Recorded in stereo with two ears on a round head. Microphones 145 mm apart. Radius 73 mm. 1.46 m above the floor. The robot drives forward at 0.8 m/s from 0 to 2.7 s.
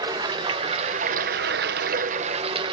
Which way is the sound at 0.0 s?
25° right (ahead or behind).